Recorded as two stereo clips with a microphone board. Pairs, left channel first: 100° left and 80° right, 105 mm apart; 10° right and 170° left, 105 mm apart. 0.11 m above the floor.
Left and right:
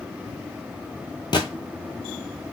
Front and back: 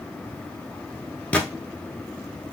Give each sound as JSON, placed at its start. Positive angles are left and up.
{"t": 1.3, "sound": "a gunshot", "azimuth_deg": 65, "distance_m": 0.6}